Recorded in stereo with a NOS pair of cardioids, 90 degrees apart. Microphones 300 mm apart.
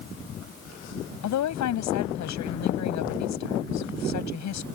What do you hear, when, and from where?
1.2 s a woman speaking: 65° left